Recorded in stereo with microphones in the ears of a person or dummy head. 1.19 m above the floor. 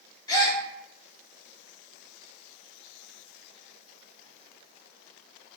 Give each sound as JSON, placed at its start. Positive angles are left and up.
{"t": 0.3, "sound": "a gasp", "side_deg": 20, "distance_m": 0.6}